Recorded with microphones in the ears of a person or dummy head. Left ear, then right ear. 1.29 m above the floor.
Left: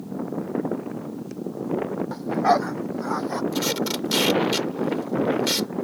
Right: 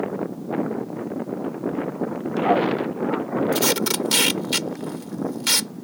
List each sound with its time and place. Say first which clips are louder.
2.1 s a dog barking: left 1 dB; 85° left; by 3.4 s 80° left
3.5 s tape being pulled: right 4 dB; 35° right (ahead or behind)